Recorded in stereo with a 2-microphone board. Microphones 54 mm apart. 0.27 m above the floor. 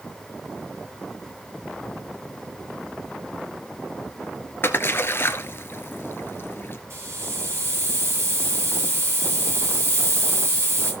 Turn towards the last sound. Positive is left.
turn(degrees=-50)  # may be behind; listen again after turning